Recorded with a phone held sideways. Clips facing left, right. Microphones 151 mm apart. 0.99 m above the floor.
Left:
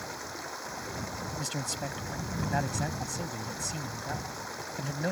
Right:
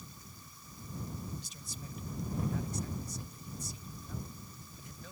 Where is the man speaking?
85° left.